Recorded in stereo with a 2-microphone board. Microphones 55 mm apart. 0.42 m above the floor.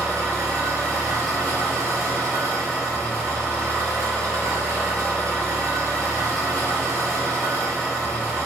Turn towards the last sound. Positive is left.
turn(degrees=-80)